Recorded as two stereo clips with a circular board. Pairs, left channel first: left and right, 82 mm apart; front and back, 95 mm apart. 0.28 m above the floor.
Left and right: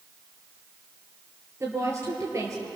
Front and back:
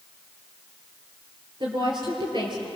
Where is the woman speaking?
145° right, 6.5 m.